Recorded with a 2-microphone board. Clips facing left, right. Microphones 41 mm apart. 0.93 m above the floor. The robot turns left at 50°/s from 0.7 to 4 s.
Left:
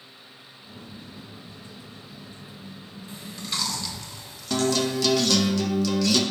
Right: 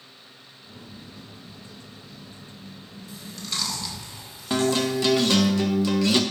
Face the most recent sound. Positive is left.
turn(degrees=-25)  # may be behind; listen again after turning